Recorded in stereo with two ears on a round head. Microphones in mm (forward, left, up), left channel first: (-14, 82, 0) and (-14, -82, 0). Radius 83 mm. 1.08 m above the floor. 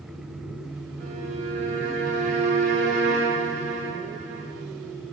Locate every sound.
1.0 s a violin: 35° right (ahead or behind), 0.7 m